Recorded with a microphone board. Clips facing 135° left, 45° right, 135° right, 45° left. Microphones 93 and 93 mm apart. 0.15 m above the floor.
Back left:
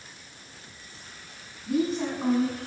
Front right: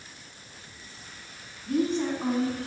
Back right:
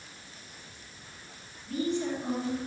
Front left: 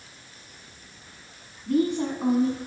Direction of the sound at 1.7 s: 50° left.